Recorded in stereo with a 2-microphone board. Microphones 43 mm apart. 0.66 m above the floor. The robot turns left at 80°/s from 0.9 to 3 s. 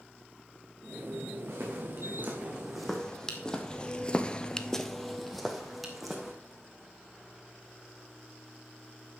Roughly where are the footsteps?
Right.